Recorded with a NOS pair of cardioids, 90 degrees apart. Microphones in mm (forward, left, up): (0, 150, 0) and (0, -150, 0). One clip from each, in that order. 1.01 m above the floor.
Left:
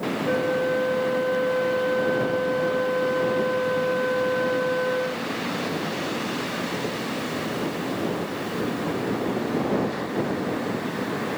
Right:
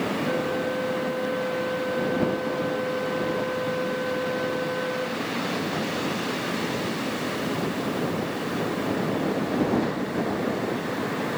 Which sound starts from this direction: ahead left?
A flute, at 0.2 s.